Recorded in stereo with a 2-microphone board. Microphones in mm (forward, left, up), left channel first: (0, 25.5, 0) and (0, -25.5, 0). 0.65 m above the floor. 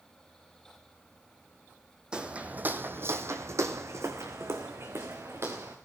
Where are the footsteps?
15° right (ahead or behind), 1.5 m; by 5.8 s 55° right (ahead or behind), 3.5 m.